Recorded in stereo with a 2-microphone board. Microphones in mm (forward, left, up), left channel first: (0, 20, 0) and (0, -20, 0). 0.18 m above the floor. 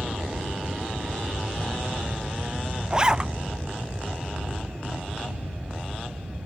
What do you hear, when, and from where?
0.0 s an aircraft: 35° right (ahead or behind)
2.9 s a zipper: 20° right (ahead or behind)